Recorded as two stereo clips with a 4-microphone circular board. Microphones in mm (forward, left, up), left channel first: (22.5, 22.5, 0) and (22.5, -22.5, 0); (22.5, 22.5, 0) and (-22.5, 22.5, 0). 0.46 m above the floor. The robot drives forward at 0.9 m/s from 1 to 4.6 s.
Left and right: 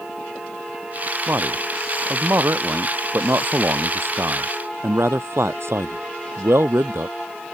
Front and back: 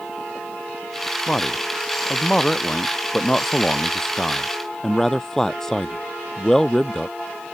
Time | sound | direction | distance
1.3 | a man speaking | 70° right | ?